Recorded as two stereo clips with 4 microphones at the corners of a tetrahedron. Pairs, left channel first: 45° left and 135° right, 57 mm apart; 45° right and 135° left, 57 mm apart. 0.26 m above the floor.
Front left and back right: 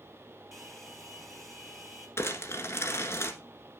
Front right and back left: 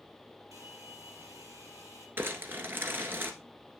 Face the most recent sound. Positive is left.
turn(degrees=85)